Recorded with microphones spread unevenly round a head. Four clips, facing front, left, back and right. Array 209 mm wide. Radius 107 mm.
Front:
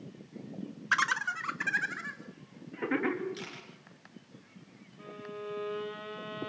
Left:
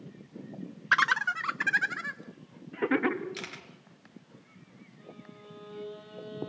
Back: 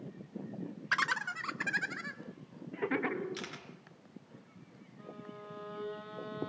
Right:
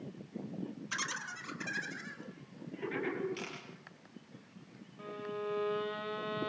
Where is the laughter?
70° left, 1.3 m; by 3.2 s 75° left, 3 m.